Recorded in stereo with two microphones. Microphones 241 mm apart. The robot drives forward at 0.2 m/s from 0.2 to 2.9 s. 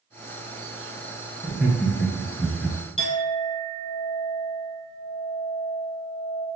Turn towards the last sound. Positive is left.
turn(degrees=60)  # may be behind; listen again after turning